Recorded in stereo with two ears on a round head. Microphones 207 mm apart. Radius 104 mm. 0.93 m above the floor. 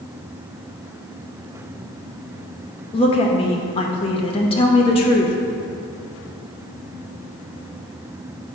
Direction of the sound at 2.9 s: 25° left (ahead or behind).